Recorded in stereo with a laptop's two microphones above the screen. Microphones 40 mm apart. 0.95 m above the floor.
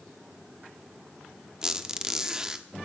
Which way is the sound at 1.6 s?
15° right (ahead or behind).